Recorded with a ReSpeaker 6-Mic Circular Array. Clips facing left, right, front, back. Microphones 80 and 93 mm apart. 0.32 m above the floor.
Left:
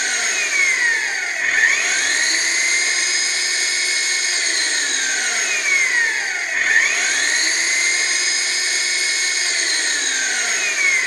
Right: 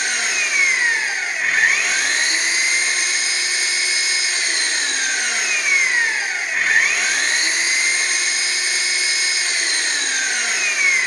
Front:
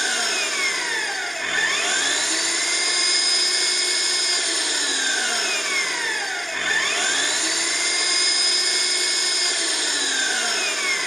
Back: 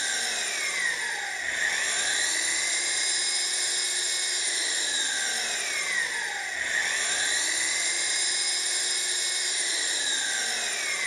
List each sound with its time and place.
0.0 s an engine running: 5° right, 3 m